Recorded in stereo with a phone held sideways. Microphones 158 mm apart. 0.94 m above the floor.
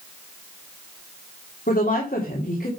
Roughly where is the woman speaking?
Left.